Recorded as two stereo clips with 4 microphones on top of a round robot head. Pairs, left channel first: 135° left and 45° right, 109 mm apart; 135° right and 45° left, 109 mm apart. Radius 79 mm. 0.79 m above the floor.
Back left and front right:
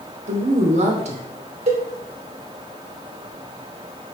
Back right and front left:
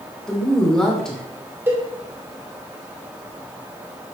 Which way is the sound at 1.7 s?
25° right.